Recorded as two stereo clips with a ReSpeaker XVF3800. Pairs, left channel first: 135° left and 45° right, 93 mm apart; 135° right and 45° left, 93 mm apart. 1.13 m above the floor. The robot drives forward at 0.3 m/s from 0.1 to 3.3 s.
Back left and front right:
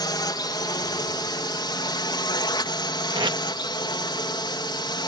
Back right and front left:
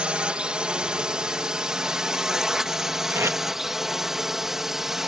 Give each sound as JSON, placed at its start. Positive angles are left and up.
{"t": 0.0, "sound": "a drone", "azimuth_deg": 120}
{"t": 3.1, "sound": "tape being pulled", "azimuth_deg": -15}